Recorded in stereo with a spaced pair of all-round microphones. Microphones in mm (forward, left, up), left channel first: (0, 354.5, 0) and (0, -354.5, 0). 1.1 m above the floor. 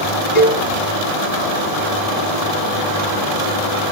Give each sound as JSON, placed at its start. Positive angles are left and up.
{"t": 0.3, "sound": "a cowbell", "side_deg": 70, "distance_m": 8.0}